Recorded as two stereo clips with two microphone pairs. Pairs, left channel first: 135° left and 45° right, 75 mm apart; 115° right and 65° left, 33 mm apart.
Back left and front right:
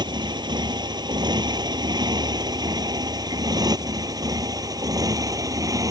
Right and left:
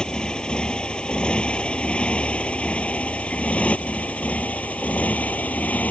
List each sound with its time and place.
0.0 s a motorcycle: 55° right; by 5.9 s 80° right